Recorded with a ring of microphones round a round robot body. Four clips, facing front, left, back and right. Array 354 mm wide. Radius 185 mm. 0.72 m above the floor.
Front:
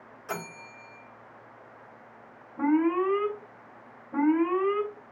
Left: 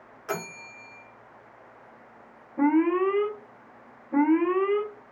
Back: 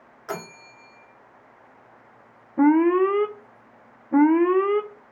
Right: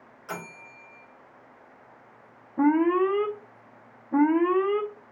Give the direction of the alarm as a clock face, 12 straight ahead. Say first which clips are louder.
Right 1 dB, back 7 dB; 6 o'clock.